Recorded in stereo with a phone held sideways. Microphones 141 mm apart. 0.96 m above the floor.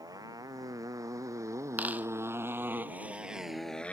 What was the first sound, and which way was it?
A motorcycle, 25° right (ahead or behind).